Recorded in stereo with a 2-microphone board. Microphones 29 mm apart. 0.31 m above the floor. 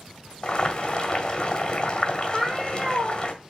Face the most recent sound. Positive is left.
turn(degrees=-15)  # may be behind; listen again after turning